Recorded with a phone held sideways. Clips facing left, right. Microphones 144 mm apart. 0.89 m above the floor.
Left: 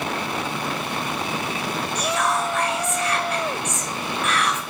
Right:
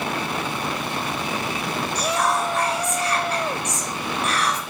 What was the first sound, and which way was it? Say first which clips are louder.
Whispering: right 1 dB; 35° right (ahead or behind).